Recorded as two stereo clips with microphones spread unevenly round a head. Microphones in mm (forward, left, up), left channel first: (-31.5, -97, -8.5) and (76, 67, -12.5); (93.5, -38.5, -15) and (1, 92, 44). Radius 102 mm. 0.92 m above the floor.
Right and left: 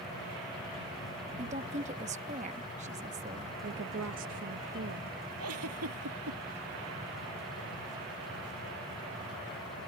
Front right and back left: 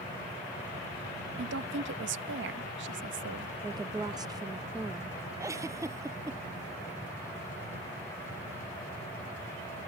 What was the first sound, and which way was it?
A woman speaking, 115° left.